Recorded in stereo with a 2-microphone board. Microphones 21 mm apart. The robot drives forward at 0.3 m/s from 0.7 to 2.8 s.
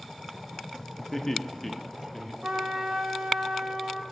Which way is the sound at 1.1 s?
15° left (ahead or behind).